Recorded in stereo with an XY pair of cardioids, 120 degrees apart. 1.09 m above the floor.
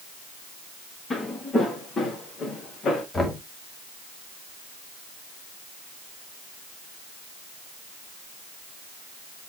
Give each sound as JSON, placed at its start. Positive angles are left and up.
{"t": 1.1, "sound": "footsteps", "azimuth_deg": 35, "distance_m": 5.5}
{"t": 3.1, "sound": "knocking", "azimuth_deg": 25, "distance_m": 2.5}